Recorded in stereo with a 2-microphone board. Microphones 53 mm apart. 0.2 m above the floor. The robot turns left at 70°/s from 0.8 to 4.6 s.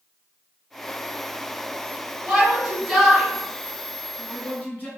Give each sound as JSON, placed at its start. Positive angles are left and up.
{"t": 2.3, "sound": "a shout", "side_deg": -30, "distance_m": 1.4}